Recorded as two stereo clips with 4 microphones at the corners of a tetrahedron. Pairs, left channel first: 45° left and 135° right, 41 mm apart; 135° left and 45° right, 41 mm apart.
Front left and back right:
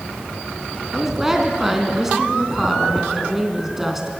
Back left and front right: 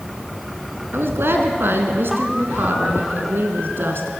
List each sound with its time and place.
0.9 s a woman speaking: 55° right, 2.5 m